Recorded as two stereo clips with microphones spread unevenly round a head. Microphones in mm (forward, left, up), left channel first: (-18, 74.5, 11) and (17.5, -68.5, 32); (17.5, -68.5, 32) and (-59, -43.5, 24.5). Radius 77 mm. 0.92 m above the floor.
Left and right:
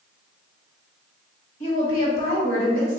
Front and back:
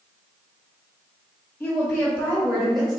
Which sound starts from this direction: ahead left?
A woman speaking, at 1.6 s.